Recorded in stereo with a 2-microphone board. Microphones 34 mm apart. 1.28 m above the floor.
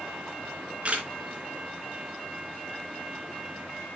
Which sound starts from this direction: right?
A camera shutter, at 0.4 s.